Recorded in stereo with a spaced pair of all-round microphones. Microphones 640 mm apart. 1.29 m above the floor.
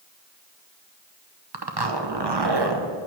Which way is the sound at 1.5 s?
40° right (ahead or behind).